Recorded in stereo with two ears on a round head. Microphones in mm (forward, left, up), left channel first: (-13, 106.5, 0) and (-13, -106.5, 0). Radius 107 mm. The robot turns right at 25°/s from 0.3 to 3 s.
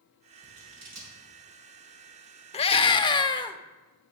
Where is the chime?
I don't hear a chime.